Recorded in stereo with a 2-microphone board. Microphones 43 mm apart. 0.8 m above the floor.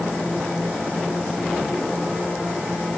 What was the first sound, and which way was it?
Only background noise.